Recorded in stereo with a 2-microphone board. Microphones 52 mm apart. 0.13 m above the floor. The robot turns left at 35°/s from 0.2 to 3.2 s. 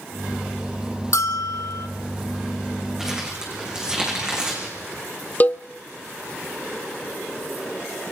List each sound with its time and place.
1.1 s a bell: 75° left (ahead or behind), 1.4 m; by 1.9 s 65° left (ahead or behind), 1.4 m
3.0 s crumpling: 10° right (ahead or behind), 7 m; by 4.7 s 15° right (ahead or behind), 7 m
5.4 s a cowbell: 35° left (ahead or behind), 0.7 m